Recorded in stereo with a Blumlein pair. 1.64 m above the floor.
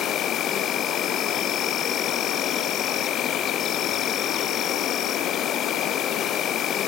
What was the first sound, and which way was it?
An insect, 30° left.